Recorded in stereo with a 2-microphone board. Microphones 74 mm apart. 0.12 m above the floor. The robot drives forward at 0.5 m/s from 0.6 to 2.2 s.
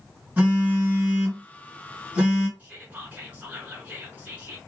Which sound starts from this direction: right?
Whispering, at 2.6 s.